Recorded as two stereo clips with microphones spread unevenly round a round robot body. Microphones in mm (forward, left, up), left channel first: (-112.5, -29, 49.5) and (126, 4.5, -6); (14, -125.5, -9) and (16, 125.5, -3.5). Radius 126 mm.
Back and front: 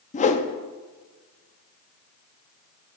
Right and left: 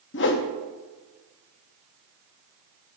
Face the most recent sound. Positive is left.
turn(degrees=-105)